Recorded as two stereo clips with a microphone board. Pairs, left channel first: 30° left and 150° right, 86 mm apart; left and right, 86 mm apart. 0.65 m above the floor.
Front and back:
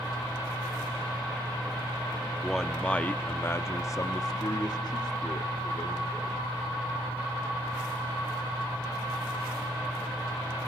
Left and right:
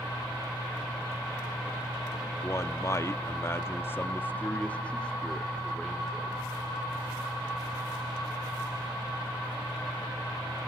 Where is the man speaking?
115° left, 1.2 m; by 6.4 s 5° left, 2 m.